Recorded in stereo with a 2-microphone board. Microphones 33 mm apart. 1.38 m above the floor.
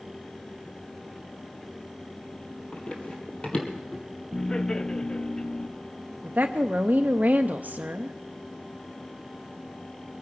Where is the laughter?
20° left (ahead or behind), 0.5 m.